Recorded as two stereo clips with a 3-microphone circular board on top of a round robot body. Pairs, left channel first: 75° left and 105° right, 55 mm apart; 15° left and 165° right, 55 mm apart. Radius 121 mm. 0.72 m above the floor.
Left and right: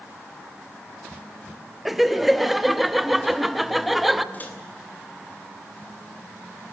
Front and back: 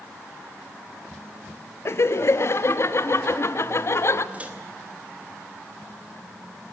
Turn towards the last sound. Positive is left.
turn(degrees=130)